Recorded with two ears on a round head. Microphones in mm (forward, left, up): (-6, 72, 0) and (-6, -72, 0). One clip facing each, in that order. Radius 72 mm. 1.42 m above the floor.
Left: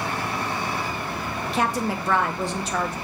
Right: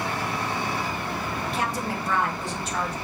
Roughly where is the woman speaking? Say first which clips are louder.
Left 7 dB; left.